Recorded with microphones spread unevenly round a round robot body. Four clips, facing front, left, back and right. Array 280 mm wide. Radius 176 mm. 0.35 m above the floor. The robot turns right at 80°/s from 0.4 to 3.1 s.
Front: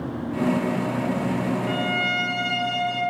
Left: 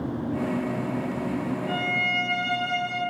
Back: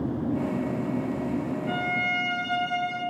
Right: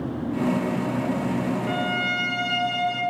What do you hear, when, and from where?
1.7 s a violin: 80° right, 4.5 m; by 3.0 s 30° left, 4.5 m